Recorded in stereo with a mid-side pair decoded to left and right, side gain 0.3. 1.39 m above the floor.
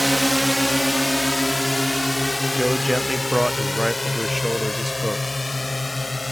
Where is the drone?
5° right; by 6.3 s 25° left.